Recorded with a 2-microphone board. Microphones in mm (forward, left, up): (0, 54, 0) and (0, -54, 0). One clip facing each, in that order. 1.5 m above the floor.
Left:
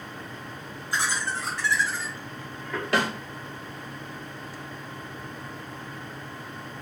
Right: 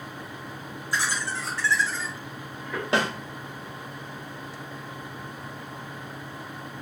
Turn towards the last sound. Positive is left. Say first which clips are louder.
# even
turn(degrees=-25)  # may be behind; listen again after turning